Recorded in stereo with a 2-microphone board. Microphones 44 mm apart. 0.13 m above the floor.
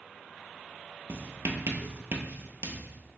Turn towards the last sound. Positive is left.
turn(degrees=-70)  # may be behind; listen again after turning